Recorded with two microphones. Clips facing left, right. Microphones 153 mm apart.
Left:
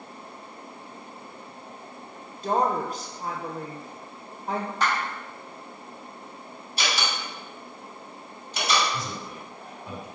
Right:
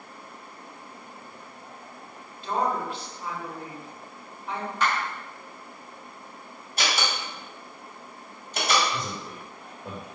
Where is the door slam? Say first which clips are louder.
Right 1 dB; 50° right (ahead or behind), 1.5 m.